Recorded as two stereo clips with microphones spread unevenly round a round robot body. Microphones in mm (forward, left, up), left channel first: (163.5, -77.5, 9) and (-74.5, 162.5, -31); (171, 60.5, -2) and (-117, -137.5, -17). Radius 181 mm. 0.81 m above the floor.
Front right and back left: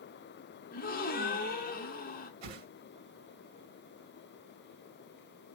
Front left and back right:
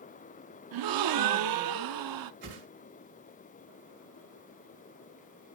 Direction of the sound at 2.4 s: 155° left.